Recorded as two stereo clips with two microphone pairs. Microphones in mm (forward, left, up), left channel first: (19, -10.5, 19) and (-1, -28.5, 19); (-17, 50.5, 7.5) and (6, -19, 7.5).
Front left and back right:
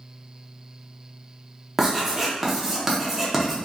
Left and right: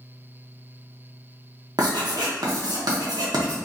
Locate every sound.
1.8 s writing: 60° right, 0.7 m